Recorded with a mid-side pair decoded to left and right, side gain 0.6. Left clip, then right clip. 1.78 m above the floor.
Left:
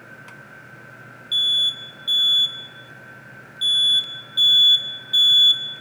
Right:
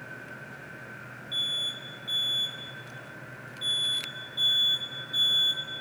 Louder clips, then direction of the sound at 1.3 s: Left 11 dB; 65° left.